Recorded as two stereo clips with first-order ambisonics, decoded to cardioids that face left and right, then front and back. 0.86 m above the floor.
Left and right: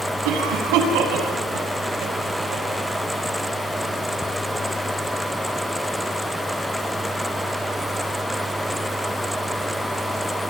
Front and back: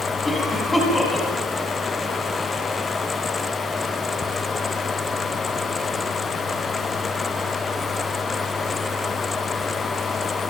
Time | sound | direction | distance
0.2 | a cough | 80° right | 8 m